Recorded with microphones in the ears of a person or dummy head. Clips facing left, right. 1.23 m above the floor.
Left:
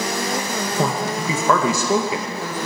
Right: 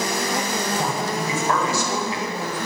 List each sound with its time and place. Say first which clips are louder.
0.8 s a man speaking: left 2 dB; 65° left (ahead or behind), 1.7 m